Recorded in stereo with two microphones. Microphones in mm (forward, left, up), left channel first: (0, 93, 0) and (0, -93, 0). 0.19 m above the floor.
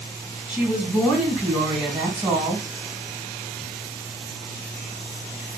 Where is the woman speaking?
5° right (ahead or behind), 1.6 m.